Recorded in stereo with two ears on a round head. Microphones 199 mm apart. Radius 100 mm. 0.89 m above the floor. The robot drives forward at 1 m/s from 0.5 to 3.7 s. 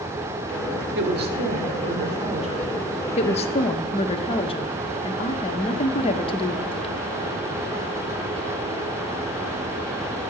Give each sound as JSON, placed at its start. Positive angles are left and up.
{"t": 0.9, "sound": "a woman speaking", "side_deg": -55, "distance_m": 2.0}
{"t": 3.2, "sound": "a woman speaking", "side_deg": 30, "distance_m": 0.8}